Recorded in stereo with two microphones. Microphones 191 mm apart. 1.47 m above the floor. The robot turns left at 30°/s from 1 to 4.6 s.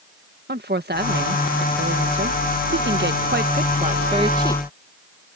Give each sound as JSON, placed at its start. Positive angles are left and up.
{"t": 0.5, "sound": "a woman speaking", "azimuth_deg": -55}